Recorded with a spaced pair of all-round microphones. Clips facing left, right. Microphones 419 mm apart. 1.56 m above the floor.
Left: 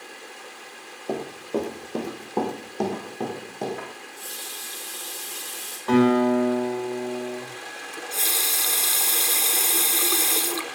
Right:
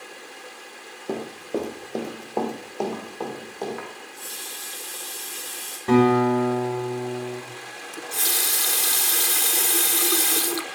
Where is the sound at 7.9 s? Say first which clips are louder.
Right 1 dB; 30° right (ahead or behind), 0.6 m.